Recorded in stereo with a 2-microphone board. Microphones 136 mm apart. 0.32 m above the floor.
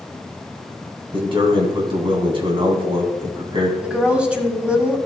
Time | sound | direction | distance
1.1 | a man speaking | 40° right (ahead or behind) | 2.5 m
3.8 | a woman speaking | 10° right (ahead or behind) | 1.7 m